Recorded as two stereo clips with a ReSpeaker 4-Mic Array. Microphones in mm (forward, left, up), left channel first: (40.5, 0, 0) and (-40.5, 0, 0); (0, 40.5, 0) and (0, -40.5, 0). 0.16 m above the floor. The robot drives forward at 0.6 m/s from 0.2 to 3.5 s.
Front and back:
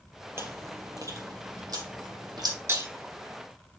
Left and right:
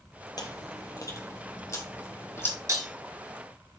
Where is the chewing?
125° left, 1.6 m; by 2.6 s 150° left, 2.5 m.